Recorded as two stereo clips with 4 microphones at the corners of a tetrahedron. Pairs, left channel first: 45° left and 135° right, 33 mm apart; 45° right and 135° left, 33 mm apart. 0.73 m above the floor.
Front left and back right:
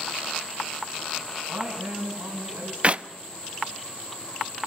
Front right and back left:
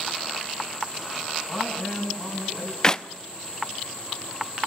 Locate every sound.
1.4 s a man speaking: 140° right, 6.5 m
2.8 s a clap: 100° right, 0.7 m